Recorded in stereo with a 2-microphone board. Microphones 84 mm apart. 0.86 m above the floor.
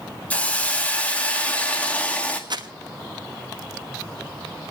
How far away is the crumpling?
About 1.2 m.